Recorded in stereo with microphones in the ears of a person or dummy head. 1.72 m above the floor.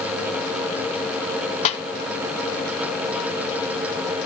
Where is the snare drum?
40° left (ahead or behind), 1.9 m.